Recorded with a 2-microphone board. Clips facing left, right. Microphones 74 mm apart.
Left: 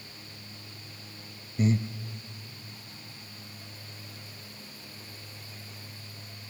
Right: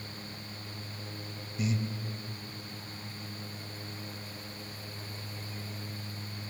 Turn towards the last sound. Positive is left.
turn(degrees=40)  # may be behind; listen again after turning